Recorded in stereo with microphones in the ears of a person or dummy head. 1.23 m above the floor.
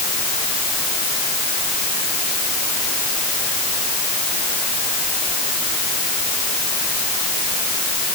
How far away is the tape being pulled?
I don't hear tape being pulled.